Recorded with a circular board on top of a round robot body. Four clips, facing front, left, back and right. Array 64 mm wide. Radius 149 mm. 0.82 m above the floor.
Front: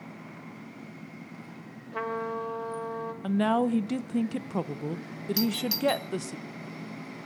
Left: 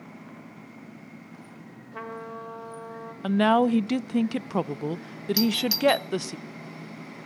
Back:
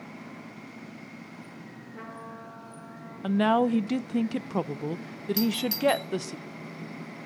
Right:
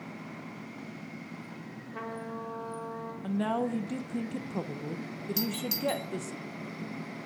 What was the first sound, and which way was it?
A trumpet, 10° left.